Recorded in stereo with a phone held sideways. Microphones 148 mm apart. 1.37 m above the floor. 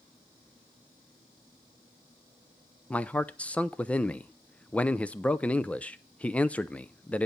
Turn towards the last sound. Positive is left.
turn(degrees=10)  # may be behind; listen again after turning